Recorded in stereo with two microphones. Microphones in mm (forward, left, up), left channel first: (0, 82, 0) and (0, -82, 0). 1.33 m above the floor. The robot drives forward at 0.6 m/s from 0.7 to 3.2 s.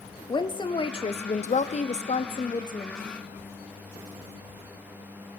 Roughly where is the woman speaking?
Left.